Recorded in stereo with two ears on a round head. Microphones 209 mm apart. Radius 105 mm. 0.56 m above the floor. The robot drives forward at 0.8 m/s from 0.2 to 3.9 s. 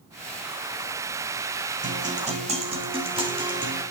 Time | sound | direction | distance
1.8 | a guitar | 35° right (ahead or behind) | 2.5 m